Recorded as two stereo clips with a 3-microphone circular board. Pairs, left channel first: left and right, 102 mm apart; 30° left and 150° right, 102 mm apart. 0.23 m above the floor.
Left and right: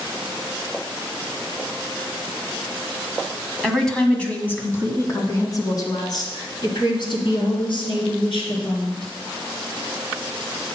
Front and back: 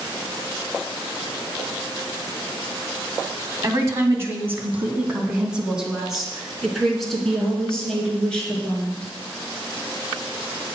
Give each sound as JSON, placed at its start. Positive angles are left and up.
{"t": 3.6, "sound": "a woman speaking", "azimuth_deg": 175, "distance_m": 1.7}